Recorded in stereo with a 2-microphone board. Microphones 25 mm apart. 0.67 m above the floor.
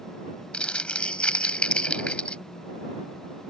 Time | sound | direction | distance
0.5 | crumpling | 50° left (ahead or behind) | ?